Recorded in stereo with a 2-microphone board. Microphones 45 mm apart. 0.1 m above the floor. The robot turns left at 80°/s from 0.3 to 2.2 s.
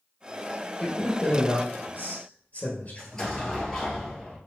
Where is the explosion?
10° left (ahead or behind), 2.0 m.